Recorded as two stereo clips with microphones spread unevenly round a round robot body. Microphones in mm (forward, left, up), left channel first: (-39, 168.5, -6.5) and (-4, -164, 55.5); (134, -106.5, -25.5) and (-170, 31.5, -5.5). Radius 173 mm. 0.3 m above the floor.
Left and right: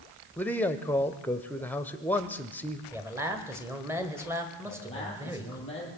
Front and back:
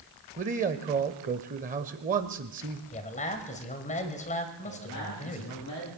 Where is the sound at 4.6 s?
20° left, 8 m.